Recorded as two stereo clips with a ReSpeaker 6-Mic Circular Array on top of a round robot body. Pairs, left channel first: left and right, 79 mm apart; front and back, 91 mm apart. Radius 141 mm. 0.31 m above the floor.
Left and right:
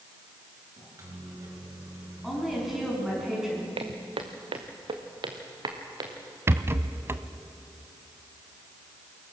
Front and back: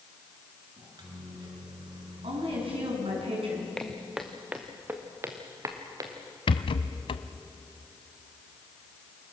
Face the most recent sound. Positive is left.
turn(degrees=-30)